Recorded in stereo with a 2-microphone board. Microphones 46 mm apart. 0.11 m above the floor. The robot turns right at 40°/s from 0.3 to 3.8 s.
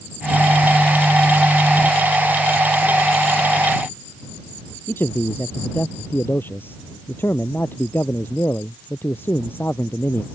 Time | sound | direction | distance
4.9 | a man speaking | 50° left (ahead or behind) | ?